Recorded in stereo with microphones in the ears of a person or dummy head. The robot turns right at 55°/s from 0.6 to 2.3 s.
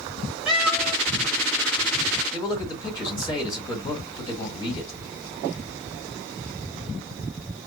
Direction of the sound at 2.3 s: 20° left (ahead or behind).